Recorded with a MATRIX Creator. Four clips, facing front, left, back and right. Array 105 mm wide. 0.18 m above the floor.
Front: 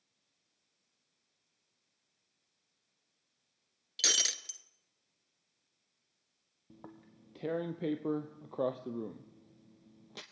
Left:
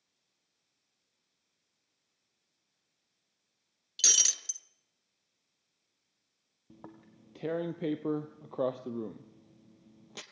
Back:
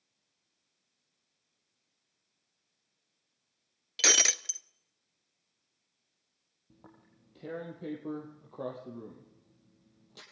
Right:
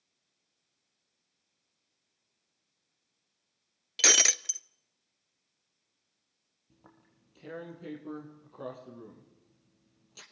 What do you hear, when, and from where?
4.0 s breaking glass: 130° right, 0.6 m
6.7 s tearing paper: 60° left, 2 m